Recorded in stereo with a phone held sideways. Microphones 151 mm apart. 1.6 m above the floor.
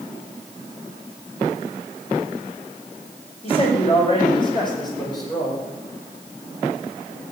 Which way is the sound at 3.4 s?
35° left (ahead or behind).